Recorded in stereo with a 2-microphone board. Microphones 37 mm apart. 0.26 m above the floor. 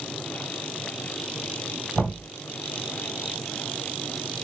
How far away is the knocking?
About 1.8 m.